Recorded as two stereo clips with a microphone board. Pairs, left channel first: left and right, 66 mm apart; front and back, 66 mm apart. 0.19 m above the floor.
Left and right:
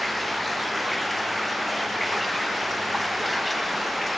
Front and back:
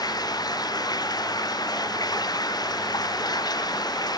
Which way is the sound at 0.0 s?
Straight ahead.